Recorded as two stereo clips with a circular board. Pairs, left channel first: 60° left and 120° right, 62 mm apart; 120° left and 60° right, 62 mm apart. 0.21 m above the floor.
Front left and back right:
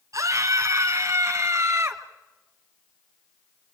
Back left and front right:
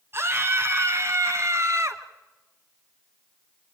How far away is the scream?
About 2.5 m.